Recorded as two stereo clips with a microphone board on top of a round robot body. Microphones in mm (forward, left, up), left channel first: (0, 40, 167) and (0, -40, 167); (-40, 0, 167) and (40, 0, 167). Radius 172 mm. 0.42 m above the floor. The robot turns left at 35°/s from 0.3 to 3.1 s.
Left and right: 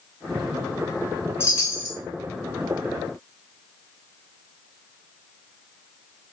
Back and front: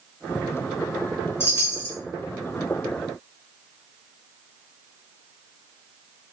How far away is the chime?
About 1.4 m.